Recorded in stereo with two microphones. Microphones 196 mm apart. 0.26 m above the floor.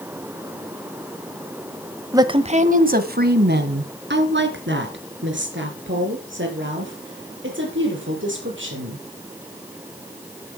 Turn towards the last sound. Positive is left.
turn(degrees=-75)  # may be behind; listen again after turning